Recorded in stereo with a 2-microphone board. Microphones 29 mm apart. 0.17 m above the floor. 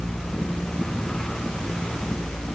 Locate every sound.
Only background noise.